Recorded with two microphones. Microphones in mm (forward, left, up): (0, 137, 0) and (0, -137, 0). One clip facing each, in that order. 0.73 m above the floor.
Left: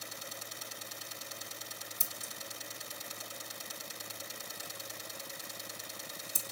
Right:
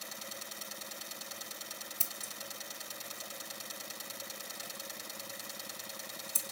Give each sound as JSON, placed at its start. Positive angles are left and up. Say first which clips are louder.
{"t": 2.0, "sound": "scissors", "louder": "left 1 dB", "side_deg": 15, "distance_m": 1.7}